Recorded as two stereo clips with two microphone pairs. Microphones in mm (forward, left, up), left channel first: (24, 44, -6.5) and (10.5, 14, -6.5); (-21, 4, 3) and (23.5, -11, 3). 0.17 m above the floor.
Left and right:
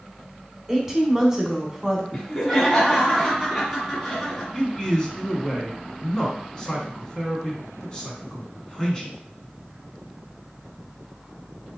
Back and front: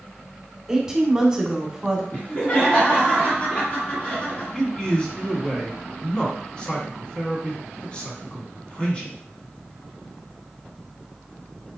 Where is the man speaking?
115° left, 1.4 m.